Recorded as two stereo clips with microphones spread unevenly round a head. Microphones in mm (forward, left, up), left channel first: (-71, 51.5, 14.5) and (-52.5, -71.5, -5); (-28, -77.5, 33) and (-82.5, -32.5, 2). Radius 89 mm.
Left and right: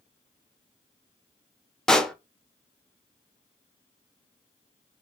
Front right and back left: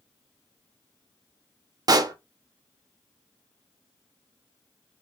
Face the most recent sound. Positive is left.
turn(degrees=-175)